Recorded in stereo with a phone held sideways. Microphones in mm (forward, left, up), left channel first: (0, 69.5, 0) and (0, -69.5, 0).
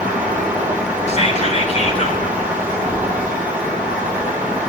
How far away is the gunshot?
I don't hear a gunshot.